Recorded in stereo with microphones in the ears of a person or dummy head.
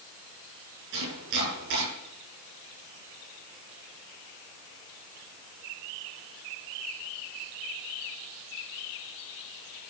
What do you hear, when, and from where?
0.9 s chopping: 70° right (ahead or behind), 9 m